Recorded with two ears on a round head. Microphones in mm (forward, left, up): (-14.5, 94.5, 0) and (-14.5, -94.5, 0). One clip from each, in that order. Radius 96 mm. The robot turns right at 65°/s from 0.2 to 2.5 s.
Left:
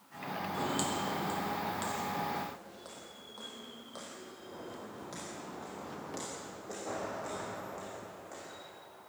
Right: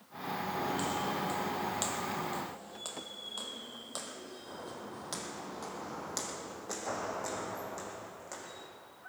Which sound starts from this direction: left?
Footsteps, at 0.5 s.